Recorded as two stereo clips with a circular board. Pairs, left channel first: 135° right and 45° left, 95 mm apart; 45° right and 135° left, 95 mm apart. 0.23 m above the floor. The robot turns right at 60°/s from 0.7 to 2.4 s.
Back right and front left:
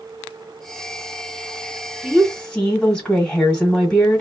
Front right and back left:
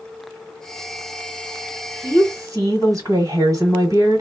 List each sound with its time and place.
2.0 s a woman speaking: 130° left, 1.7 m; by 4.2 s 150° left, 1.7 m